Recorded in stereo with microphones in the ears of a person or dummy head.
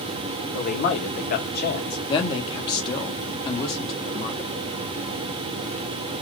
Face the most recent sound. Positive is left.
turn(degrees=25)  # may be behind; listen again after turning